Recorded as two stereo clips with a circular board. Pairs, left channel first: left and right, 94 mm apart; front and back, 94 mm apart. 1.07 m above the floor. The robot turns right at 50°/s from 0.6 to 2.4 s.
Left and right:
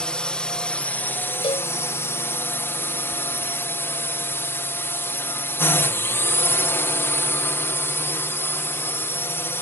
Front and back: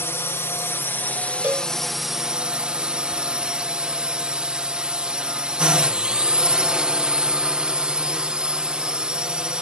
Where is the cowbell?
105° left; by 1.7 s 120° left.